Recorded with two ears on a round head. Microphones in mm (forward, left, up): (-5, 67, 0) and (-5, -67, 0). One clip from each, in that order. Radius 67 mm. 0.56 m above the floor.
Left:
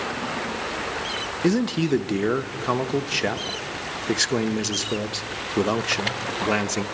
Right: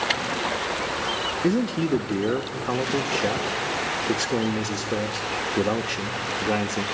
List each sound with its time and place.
1.4 s a man speaking: 50° left (ahead or behind), 0.9 m